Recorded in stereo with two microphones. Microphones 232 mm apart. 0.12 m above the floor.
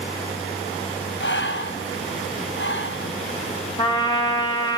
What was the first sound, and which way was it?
Breathing, 60° left (ahead or behind).